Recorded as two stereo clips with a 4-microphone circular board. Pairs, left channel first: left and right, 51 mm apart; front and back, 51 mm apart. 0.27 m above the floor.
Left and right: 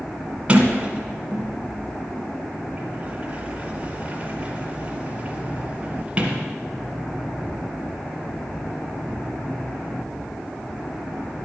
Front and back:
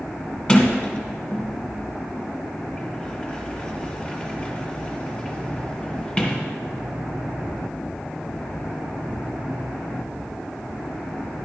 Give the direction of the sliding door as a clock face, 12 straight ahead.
2 o'clock.